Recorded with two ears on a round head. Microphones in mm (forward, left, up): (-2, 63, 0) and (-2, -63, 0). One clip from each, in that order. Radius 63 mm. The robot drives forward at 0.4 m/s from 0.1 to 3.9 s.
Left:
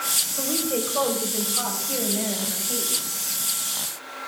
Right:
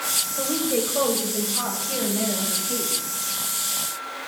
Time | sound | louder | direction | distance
0.4 | a woman speaking | right 2 dB | 30° left (ahead or behind) | 3 m